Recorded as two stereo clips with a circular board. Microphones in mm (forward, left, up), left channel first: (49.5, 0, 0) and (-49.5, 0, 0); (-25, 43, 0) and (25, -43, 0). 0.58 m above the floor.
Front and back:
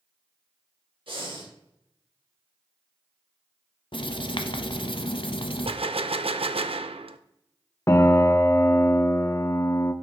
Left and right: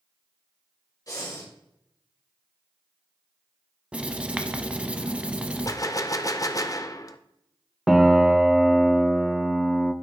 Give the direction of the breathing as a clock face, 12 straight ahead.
6 o'clock.